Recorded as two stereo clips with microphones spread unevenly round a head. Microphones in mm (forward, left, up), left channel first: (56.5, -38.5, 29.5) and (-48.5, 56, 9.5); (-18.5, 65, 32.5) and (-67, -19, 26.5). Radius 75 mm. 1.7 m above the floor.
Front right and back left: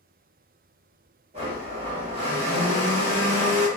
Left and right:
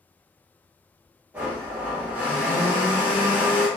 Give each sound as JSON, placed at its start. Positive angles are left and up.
{"t": 1.3, "sound": "a blender", "azimuth_deg": 170, "distance_m": 1.0}